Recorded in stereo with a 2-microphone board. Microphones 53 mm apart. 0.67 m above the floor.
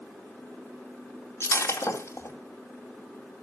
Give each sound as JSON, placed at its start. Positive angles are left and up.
{"t": 1.4, "sound": "breaking glass", "side_deg": 55, "distance_m": 2.5}